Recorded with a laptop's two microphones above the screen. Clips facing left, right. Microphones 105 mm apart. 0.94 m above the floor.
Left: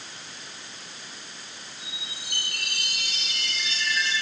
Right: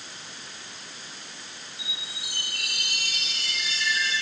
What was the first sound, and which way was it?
A chime, 15° right (ahead or behind).